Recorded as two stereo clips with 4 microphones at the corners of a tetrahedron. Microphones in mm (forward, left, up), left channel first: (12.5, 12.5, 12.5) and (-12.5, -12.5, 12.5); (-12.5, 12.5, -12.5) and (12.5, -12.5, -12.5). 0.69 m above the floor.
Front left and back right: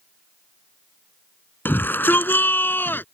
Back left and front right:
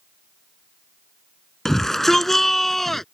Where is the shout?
55° left; by 3.0 s 50° left.